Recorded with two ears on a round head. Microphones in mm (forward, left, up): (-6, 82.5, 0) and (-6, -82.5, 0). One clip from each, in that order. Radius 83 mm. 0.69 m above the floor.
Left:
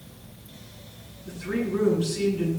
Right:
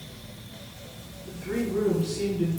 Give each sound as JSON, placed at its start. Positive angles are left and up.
{"t": 1.3, "sound": "a woman speaking", "side_deg": 30, "distance_m": 8.5}